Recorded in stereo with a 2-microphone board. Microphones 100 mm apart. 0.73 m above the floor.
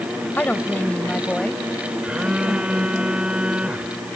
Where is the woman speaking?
15° left (ahead or behind); by 3.0 s centre (ahead or behind).